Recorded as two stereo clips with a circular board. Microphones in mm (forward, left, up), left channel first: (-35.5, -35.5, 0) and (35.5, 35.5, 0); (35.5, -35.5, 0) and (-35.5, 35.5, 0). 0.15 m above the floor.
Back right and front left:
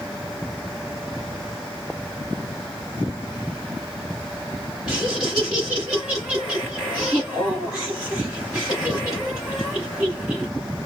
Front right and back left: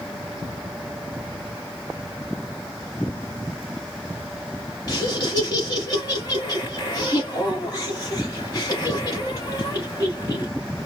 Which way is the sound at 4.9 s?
35° right.